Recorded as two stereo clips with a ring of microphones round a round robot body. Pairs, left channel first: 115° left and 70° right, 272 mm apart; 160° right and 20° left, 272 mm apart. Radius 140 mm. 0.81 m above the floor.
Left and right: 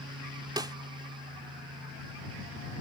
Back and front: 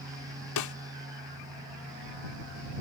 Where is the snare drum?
145° right.